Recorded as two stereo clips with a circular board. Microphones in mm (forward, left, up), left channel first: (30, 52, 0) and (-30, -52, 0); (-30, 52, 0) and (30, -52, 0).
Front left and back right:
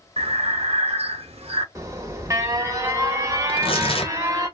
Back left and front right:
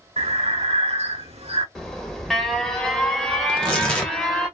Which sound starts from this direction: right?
Breathing, at 0.2 s.